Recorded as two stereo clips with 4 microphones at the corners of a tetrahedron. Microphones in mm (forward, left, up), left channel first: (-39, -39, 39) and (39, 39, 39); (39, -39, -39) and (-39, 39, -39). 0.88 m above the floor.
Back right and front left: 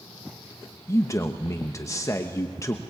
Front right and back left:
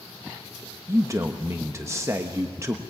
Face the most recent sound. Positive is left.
turn(degrees=180)